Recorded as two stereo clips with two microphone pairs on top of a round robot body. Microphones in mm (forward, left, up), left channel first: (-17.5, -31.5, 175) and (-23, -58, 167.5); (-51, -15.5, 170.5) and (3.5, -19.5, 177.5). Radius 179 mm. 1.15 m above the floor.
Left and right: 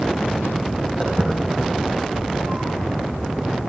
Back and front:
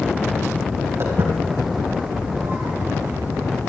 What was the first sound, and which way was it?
Footsteps, 45° right.